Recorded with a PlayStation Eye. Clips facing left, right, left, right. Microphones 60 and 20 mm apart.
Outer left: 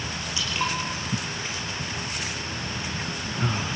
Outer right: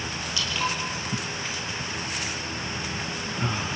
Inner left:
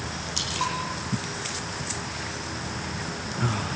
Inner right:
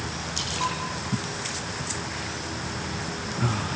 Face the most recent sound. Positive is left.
turn(degrees=20)  # may be behind; listen again after turning